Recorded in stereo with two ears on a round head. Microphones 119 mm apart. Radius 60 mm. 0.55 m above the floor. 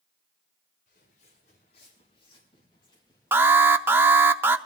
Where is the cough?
I don't hear a cough.